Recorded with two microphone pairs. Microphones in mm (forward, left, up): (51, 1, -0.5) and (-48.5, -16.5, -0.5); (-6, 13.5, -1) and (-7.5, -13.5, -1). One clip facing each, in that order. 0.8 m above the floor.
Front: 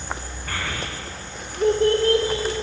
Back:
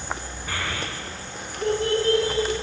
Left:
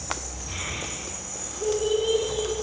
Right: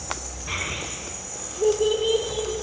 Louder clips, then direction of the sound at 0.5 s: Even, right 4 dB; 85° right.